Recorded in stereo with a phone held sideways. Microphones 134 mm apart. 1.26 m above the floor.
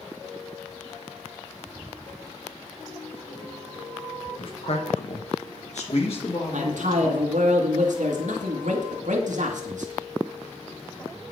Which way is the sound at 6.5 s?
75° right (ahead or behind).